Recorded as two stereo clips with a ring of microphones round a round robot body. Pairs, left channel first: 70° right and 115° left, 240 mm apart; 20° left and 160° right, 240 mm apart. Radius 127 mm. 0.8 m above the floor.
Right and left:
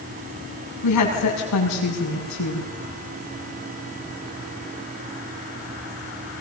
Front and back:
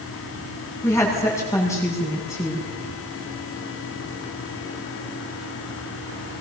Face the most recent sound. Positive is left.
turn(degrees=-55)